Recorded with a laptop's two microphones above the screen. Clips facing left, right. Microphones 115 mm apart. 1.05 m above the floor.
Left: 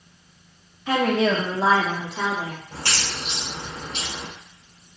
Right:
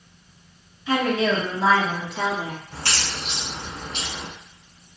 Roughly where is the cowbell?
No cowbell in this recording.